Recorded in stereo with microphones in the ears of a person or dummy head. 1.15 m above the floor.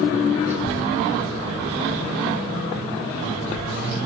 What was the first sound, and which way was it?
A child speaking, 10° right (ahead or behind).